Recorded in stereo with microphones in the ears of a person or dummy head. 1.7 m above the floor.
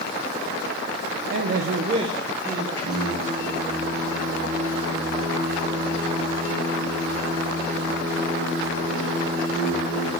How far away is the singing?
About 7 m.